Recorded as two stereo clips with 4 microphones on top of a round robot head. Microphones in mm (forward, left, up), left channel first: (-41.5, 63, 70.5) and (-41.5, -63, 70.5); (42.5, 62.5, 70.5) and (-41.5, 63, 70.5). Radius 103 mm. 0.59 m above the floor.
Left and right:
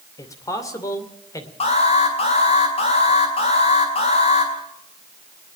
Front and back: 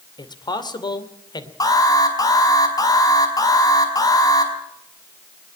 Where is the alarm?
45° left, 4.5 m.